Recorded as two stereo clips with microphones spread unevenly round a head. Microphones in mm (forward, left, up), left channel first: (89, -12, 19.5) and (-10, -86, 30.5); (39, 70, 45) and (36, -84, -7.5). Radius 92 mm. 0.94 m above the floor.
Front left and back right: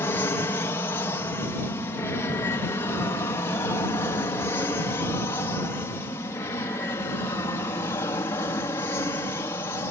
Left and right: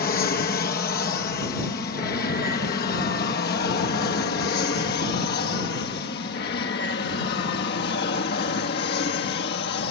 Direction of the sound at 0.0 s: 95° left.